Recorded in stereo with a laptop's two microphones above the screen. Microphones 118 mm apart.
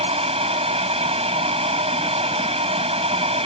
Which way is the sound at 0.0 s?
60° right (ahead or behind).